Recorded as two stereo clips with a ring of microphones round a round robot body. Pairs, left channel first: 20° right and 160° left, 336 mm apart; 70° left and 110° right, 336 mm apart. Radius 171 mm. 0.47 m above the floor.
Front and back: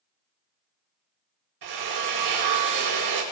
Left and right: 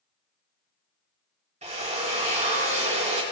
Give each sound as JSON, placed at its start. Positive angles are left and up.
{"t": 1.6, "sound": "a drill", "azimuth_deg": 180, "distance_m": 3.0}